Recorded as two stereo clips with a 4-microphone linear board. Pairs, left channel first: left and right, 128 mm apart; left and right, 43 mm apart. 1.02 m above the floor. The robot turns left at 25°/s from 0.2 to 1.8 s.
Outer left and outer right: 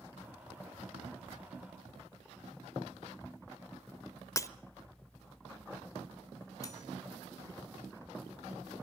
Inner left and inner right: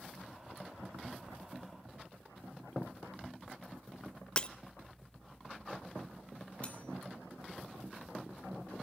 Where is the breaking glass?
25° left (ahead or behind), 0.7 m.